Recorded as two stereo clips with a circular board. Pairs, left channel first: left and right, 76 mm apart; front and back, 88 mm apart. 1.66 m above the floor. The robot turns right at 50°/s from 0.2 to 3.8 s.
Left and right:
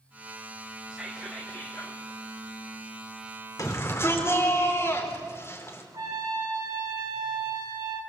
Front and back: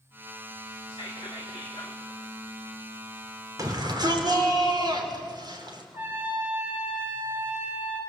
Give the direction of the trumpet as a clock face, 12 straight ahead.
4 o'clock.